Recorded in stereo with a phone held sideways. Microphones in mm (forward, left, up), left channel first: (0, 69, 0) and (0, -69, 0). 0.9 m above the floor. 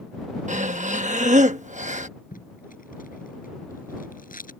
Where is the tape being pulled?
80° left.